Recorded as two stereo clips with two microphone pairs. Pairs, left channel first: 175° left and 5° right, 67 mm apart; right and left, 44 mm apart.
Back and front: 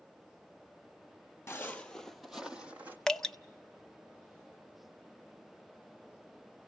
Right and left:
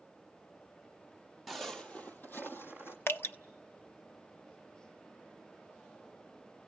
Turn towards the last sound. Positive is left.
turn(degrees=-105)